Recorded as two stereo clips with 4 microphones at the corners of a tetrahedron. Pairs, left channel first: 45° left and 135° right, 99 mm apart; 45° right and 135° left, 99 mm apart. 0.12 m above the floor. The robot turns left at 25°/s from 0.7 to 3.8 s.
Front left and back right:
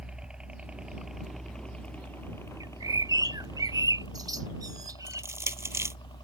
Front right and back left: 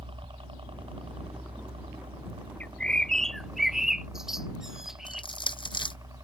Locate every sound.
0.0 s a helicopter: 145° left; by 6.3 s 85° left
2.6 s a bird: 115° right; by 5.2 s 145° right
5.1 s crushing: 75° right